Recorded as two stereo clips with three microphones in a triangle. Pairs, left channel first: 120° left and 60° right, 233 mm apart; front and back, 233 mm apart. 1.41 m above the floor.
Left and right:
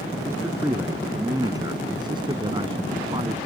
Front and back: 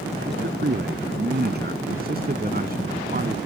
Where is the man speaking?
140° right; by 3.5 s 125° right.